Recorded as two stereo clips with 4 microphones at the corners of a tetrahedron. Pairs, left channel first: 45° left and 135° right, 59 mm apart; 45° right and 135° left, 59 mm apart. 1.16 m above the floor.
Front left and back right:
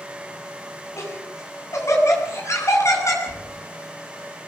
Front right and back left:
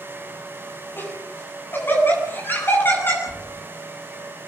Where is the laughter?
10° left, 7.5 m.